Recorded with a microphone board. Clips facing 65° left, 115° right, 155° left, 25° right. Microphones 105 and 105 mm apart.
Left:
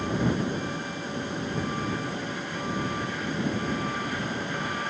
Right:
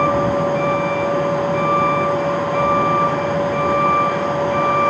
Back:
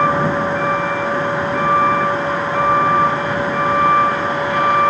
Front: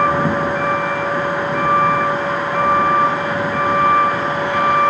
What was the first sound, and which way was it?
A vehicle, 110° right.